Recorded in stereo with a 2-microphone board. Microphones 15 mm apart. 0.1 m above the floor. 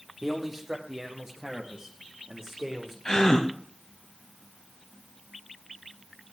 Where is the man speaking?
20° right (ahead or behind), 4 m; by 3.0 s 45° right (ahead or behind), 6 m.